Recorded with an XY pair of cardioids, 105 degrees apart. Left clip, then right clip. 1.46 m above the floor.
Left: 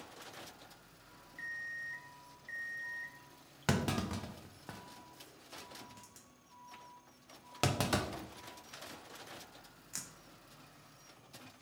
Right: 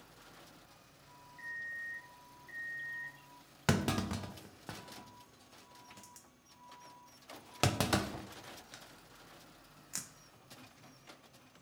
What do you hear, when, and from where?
1.4 s an alarm clock: 40° left, 1.7 m
3.7 s a clunk: 20° right, 0.6 m